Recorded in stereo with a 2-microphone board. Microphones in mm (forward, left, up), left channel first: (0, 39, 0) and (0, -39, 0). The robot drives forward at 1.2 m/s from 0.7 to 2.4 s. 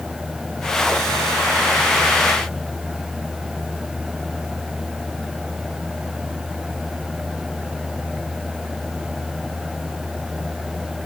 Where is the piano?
No piano in this recording.